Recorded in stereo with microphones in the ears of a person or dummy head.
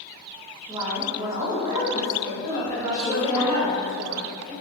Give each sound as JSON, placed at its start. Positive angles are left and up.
{"t": 0.7, "sound": "a woman speaking", "side_deg": -20, "distance_m": 0.7}
{"t": 2.4, "sound": "a woman speaking", "side_deg": -20, "distance_m": 1.8}